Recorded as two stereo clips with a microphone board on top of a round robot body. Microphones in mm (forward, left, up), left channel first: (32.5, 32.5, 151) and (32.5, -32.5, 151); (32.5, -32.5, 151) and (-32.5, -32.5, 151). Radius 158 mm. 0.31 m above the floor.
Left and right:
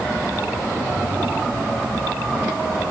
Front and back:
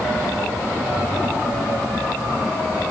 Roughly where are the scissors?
No scissors in this recording.